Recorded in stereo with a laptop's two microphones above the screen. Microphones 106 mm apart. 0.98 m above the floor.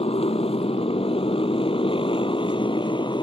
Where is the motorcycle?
70° left (ahead or behind); by 3.2 s 50° left (ahead or behind).